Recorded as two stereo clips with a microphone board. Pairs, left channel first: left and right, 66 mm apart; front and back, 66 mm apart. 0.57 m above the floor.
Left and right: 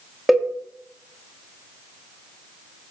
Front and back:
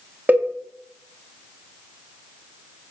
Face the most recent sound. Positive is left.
turn(degrees=-170)